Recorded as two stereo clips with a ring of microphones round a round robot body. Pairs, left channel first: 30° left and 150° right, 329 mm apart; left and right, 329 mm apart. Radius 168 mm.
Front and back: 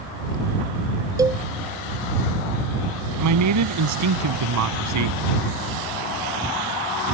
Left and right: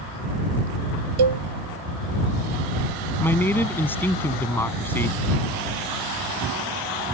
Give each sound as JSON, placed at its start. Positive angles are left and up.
{"t": 1.2, "sound": "a cowbell", "azimuth_deg": -70}
{"t": 3.2, "sound": "a man speaking", "azimuth_deg": 175}